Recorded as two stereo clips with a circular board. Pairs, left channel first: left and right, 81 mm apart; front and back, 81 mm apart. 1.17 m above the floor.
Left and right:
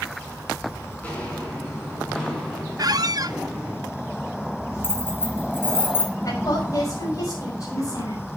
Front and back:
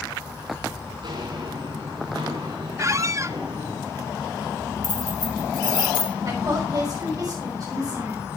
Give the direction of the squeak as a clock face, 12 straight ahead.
4 o'clock.